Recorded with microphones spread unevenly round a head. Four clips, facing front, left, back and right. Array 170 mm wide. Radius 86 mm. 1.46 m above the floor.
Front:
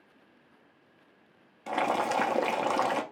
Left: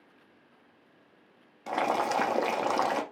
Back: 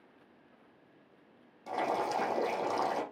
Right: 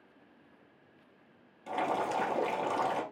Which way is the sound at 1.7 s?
60° left.